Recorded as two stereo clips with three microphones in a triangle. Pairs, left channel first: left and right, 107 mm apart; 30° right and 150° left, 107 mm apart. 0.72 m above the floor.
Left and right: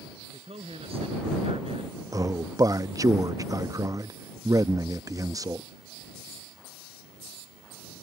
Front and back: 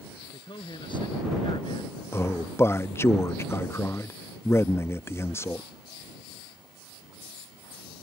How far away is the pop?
I don't hear a pop.